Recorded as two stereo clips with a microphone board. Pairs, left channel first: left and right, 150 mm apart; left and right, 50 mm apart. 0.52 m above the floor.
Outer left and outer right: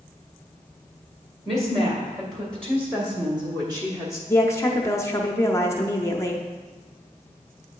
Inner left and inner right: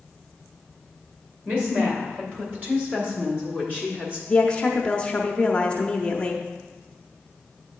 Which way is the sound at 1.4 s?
40° right (ahead or behind).